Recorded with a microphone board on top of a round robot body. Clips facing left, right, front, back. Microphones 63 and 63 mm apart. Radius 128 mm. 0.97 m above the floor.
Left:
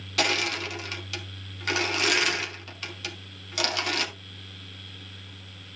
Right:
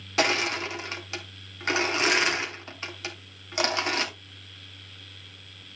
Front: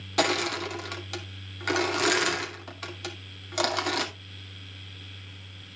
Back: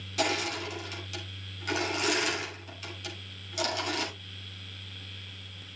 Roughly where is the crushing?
Ahead right.